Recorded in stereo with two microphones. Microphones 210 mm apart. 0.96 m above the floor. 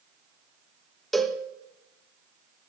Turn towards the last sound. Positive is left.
turn(degrees=0)  # may be behind; listen again after turning